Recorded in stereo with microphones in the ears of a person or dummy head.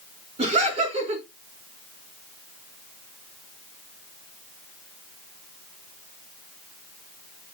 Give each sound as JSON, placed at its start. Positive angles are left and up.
{"t": 0.4, "sound": "laughter", "side_deg": -35, "distance_m": 3.5}